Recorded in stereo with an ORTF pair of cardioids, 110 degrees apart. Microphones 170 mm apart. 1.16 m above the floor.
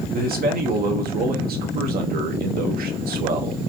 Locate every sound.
0.1 s a man speaking: 60° right, 1.2 m